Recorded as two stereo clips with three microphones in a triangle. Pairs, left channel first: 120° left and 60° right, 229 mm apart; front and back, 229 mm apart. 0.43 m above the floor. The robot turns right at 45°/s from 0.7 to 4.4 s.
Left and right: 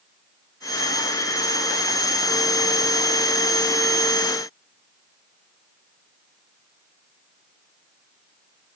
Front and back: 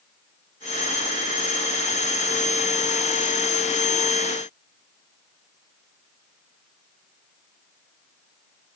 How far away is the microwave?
I don't hear a microwave.